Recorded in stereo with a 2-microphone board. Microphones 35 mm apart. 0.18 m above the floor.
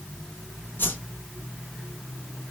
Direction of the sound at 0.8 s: 75° left (ahead or behind).